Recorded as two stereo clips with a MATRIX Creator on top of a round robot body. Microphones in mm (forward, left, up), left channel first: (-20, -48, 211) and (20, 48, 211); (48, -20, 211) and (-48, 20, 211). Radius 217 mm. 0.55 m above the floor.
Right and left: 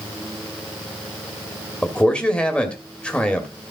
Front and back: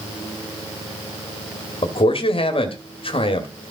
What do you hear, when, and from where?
1.8 s a man speaking: 35° right, 1.7 m